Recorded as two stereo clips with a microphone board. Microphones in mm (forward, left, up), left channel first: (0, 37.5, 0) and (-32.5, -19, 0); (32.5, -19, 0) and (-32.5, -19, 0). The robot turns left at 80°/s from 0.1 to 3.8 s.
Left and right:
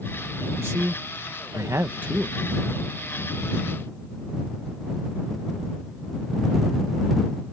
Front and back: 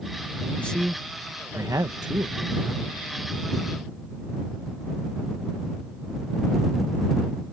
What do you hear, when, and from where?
0.6 s a man speaking: 65° right; by 2.9 s 110° left